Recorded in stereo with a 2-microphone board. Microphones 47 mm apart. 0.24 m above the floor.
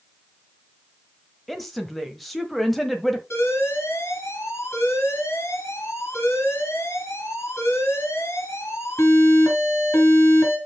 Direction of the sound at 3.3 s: 70° left (ahead or behind).